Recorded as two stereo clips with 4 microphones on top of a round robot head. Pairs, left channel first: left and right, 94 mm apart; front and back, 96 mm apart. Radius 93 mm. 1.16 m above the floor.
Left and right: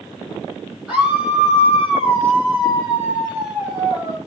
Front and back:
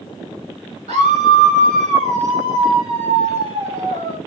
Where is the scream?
175° right, 8.5 m; by 4.2 s 165° right, 12 m.